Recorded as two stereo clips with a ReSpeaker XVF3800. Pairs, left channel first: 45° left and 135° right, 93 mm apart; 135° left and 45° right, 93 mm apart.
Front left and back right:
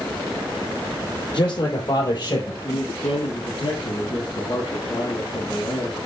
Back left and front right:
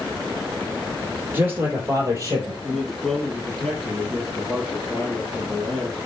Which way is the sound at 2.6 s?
45° left.